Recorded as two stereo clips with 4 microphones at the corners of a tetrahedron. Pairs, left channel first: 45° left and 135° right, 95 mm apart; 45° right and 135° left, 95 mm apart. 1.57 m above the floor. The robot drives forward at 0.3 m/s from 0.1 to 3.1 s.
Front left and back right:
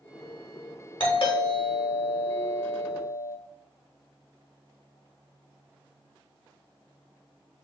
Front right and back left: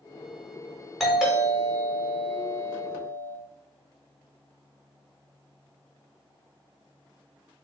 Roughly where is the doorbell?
Ahead left.